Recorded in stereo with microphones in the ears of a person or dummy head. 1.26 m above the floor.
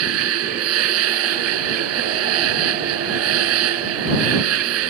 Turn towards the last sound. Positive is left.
turn(degrees=-75)  # may be behind; listen again after turning